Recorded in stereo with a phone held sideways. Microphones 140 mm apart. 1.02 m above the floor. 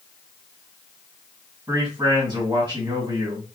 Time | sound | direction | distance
1.7 | a man speaking | 30° right (ahead or behind) | 1.5 m